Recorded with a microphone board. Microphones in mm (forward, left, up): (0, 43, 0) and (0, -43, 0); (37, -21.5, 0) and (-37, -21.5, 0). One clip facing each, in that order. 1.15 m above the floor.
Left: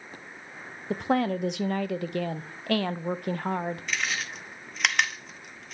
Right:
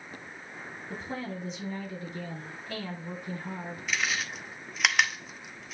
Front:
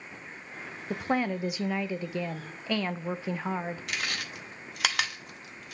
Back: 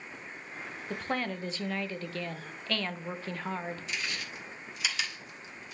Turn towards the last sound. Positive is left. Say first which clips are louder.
# even, front 3 dB
turn(degrees=-5)